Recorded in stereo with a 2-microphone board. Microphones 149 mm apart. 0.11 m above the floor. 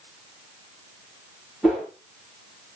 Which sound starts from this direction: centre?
A whoosh, at 1.6 s.